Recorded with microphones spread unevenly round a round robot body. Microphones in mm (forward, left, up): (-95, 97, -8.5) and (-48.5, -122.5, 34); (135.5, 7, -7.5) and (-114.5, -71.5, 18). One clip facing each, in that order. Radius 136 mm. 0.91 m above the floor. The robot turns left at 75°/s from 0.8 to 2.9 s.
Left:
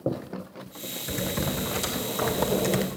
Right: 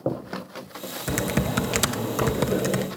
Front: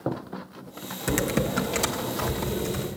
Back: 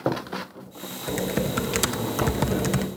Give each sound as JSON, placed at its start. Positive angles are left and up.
{"t": 1.1, "sound": "typing on a keyboard", "azimuth_deg": -40, "distance_m": 0.5}